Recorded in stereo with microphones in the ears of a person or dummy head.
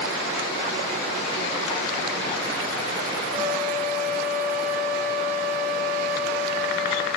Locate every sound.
3.3 s a flute: 15° right (ahead or behind), 1.9 m